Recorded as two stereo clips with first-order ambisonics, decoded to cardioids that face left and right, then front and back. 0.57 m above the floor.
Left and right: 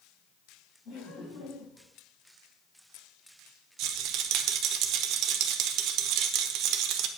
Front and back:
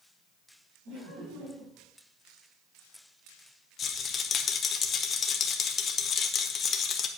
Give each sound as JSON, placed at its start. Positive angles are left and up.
{"t": 0.8, "sound": "laughter", "azimuth_deg": 150, "distance_m": 5.5}
{"t": 3.8, "sound": "a rattle", "azimuth_deg": -60, "distance_m": 0.9}